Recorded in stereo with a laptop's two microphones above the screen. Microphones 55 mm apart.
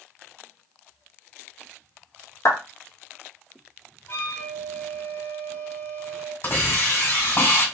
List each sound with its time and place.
2.5 s a clap: 65° left (ahead or behind), 1.0 m
4.1 s a flute: 50° left (ahead or behind), 1.8 m
6.4 s a hiss: 50° left (ahead or behind), 1.7 m